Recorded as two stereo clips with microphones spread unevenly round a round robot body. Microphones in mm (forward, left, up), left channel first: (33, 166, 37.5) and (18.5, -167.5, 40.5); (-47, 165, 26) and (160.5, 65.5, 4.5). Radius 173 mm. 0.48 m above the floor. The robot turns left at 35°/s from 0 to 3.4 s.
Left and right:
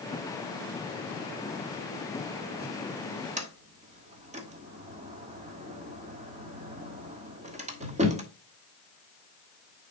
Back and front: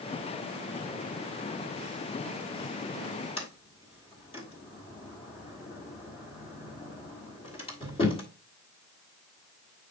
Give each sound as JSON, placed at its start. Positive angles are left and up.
{"t": 3.4, "sound": "a sliding door", "azimuth_deg": -145, "distance_m": 1.6}